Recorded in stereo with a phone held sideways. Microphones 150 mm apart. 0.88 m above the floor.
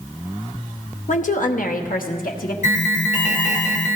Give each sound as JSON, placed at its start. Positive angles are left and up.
{"t": 1.1, "sound": "a woman speaking", "side_deg": 55, "distance_m": 0.8}
{"t": 2.6, "sound": "an alarm", "side_deg": 60, "distance_m": 1.3}